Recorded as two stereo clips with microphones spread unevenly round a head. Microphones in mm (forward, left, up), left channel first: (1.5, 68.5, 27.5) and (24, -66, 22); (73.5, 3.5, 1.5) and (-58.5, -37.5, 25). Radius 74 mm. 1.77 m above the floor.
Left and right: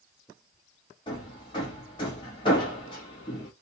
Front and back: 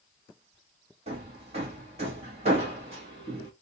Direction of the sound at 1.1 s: 155° left.